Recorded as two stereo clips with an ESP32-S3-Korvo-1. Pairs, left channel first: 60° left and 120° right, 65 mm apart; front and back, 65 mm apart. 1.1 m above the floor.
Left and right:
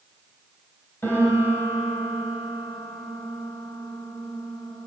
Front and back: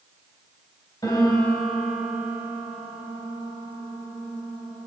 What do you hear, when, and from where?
1.0 s a piano: 5° left, 3 m